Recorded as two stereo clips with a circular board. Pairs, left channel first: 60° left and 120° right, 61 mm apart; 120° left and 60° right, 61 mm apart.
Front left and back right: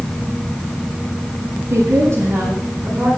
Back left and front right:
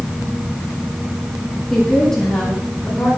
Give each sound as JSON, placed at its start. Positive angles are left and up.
{"t": 1.7, "sound": "a woman speaking", "azimuth_deg": -160, "distance_m": 7.5}